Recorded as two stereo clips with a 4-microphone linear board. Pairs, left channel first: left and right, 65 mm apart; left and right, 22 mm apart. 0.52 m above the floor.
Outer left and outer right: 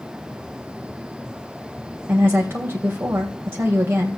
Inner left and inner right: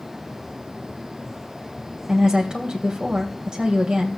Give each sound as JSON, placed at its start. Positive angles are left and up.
{"t": 2.1, "sound": "a woman speaking", "side_deg": -35, "distance_m": 3.0}